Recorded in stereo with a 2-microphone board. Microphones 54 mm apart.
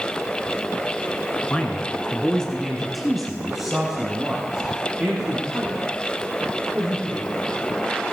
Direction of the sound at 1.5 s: 25° left (ahead or behind).